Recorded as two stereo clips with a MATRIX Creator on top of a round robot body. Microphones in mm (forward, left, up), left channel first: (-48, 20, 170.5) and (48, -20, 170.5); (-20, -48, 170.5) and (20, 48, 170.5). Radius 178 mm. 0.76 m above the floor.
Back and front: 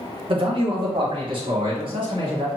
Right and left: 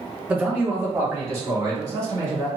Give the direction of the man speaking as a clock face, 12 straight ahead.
12 o'clock.